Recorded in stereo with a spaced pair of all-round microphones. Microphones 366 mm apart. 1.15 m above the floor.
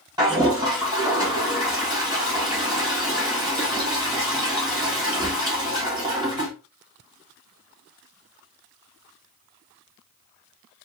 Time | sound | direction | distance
0.2 | a toilet flushing | 10° right (ahead or behind) | 1.4 m